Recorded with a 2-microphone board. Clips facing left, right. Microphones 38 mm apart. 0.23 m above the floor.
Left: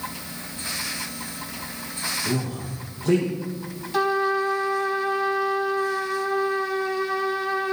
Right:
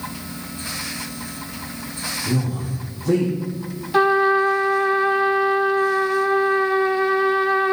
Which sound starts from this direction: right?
A trumpet, at 3.9 s.